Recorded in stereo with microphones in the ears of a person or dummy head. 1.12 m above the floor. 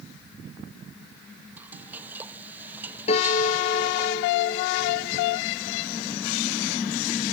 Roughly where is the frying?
Centre.